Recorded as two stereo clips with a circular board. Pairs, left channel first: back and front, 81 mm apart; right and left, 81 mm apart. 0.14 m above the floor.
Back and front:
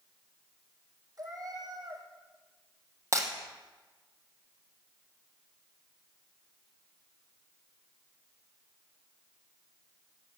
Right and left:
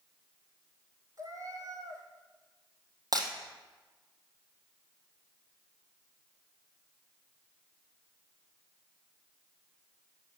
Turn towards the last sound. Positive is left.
turn(degrees=50)